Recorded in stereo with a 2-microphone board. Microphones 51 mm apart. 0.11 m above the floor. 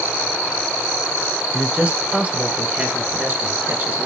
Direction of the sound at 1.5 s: 25° right (ahead or behind).